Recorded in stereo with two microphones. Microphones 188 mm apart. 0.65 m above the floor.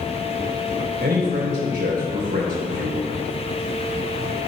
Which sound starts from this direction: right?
A man speaking, at 1.0 s.